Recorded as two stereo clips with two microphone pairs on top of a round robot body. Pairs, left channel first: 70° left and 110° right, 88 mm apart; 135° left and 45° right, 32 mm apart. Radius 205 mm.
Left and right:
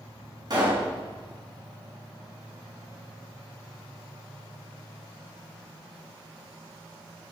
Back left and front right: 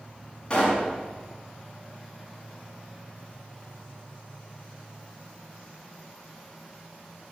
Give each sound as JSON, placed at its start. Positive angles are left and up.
{"t": 0.5, "sound": "a pop", "azimuth_deg": -155, "distance_m": 5.0}